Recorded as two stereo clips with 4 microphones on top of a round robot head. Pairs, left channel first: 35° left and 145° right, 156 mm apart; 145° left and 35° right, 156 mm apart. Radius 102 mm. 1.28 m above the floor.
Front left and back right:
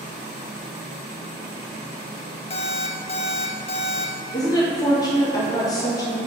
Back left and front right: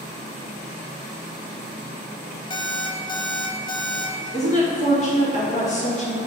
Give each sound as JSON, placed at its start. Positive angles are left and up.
{"t": 2.5, "sound": "an alarm clock", "azimuth_deg": 85, "distance_m": 0.5}
{"t": 4.3, "sound": "a woman speaking", "azimuth_deg": 100, "distance_m": 1.7}